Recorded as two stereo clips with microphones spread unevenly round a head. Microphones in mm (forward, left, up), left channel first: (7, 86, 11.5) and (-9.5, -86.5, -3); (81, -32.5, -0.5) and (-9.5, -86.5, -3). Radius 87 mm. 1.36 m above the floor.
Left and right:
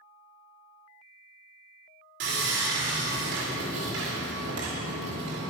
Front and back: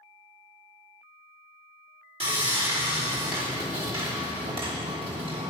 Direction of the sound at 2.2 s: 120° right.